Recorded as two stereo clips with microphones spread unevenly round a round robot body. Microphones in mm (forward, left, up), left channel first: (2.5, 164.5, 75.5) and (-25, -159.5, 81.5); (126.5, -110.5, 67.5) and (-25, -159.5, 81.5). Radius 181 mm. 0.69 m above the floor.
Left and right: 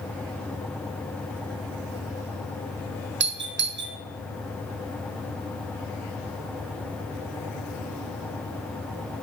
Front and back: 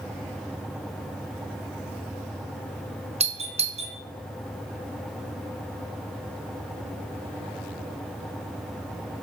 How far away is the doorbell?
About 1.0 m.